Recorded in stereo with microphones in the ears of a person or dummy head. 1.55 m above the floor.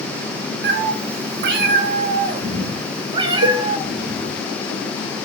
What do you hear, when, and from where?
0.6 s a cat meowing: 60° right (ahead or behind), 1.6 m; by 4.4 s 20° right (ahead or behind), 2.5 m
3.4 s a cowbell: 60° right (ahead or behind), 1.2 m